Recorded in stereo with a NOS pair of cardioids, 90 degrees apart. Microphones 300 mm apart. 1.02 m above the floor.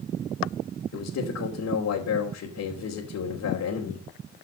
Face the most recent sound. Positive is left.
turn(degrees=65)